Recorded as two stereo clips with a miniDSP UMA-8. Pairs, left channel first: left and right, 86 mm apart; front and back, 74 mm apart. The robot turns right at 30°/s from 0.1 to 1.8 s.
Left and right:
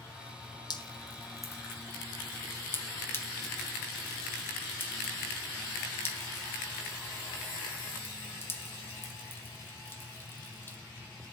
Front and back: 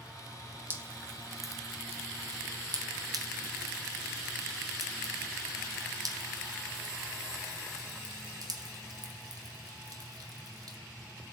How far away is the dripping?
About 2.5 m.